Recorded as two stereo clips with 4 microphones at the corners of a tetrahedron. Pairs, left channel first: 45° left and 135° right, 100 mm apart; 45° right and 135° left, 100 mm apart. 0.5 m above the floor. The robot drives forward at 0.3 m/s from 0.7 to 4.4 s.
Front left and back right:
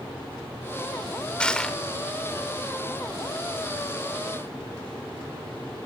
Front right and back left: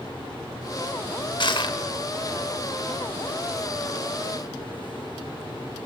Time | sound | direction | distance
1.4 | crushing | 35° right | 1.6 m